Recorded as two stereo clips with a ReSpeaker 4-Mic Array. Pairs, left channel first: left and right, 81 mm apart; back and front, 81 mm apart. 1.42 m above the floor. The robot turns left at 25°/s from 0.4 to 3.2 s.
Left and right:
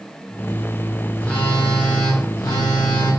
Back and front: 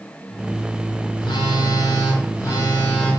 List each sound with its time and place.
1.2 s a phone buzzing: 165° left, 7 m; by 3.1 s 115° left, 7 m